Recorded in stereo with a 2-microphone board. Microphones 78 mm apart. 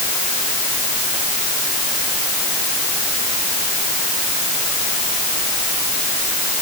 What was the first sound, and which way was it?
Only background noise.